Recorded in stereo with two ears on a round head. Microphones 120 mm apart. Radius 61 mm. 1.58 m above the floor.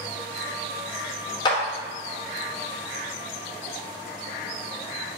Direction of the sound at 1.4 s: 30° left (ahead or behind).